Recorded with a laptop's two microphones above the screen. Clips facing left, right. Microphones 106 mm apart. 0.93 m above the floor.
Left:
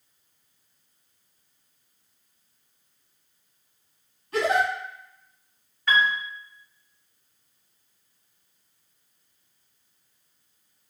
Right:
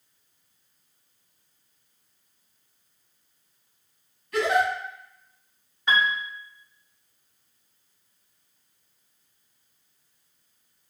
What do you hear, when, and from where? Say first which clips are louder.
4.3 s a giggle: even; 25° left (ahead or behind), 1.5 m
5.9 s a piano: left 1 dB; 15° right (ahead or behind), 0.7 m